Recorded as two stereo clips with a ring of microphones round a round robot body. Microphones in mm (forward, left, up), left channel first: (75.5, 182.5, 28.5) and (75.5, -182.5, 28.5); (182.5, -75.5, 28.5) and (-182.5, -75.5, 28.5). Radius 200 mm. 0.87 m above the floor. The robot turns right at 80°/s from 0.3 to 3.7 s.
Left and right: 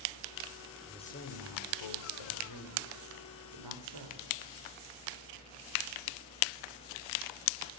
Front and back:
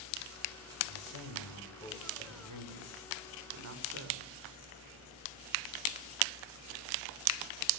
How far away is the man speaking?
About 3.5 m.